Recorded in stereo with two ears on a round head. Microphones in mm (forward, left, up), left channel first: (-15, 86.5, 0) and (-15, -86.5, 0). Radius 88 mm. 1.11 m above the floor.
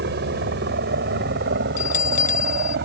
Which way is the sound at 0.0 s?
60° right (ahead or behind).